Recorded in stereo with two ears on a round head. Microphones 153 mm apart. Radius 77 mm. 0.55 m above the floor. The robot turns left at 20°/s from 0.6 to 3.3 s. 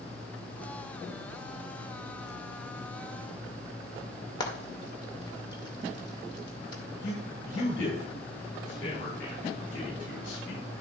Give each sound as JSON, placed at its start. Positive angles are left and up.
{"t": 4.4, "sound": "frying", "side_deg": 25, "distance_m": 2.0}
{"t": 7.0, "sound": "a man speaking", "side_deg": 80, "distance_m": 5.0}